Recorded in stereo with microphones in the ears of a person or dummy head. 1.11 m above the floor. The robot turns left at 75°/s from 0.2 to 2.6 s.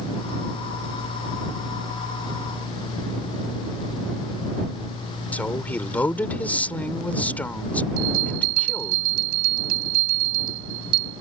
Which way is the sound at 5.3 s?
15° left (ahead or behind).